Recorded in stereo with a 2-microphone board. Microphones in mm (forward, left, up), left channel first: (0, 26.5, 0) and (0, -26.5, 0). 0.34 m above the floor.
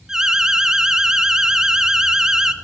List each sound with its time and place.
0.1 s an alarm: 10° right (ahead or behind), 0.8 m